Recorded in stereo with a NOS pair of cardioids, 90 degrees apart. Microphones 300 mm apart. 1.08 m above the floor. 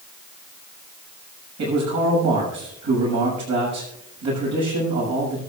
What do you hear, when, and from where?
1.6 s a man speaking: 65° right, 7 m